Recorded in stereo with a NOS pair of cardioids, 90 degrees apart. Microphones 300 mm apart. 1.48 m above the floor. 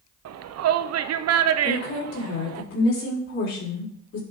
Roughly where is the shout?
Ahead right.